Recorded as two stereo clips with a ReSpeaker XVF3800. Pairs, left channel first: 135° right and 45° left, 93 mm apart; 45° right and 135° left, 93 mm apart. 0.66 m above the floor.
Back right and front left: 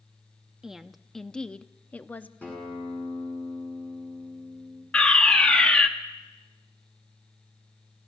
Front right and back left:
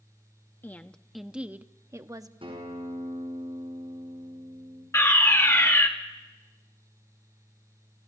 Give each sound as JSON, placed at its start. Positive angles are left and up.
{"t": 0.6, "sound": "a woman speaking", "azimuth_deg": -30, "distance_m": 0.7}
{"t": 2.4, "sound": "a guitar", "azimuth_deg": 150, "distance_m": 8.0}
{"t": 4.9, "sound": "a fire alarm", "azimuth_deg": -65, "distance_m": 1.7}